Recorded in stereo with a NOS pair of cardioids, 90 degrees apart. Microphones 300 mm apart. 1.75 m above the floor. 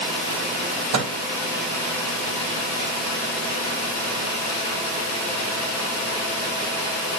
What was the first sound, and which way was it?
A microwave, 65° right.